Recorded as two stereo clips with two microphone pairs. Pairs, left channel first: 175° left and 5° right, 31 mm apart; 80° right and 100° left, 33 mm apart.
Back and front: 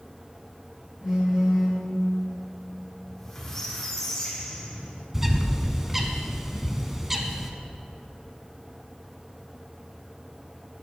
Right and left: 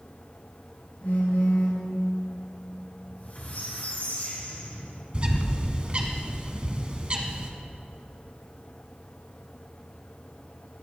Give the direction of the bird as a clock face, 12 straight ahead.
10 o'clock.